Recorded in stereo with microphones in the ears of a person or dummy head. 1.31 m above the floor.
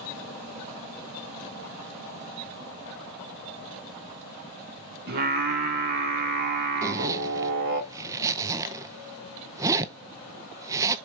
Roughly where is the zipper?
Centre.